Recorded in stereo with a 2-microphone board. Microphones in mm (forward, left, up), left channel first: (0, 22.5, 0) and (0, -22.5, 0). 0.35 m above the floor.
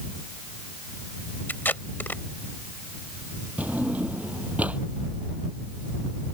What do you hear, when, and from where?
1.5 s tape being pulled: 50° left (ahead or behind)
3.6 s a drawer: 35° right (ahead or behind)